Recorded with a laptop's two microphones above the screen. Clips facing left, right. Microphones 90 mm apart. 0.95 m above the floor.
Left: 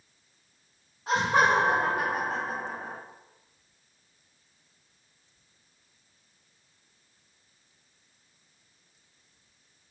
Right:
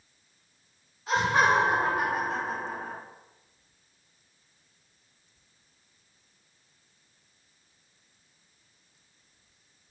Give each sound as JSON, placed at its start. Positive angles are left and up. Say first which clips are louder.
{"t": 1.1, "sound": "laughter", "louder": "even", "side_deg": 60, "distance_m": 1.7}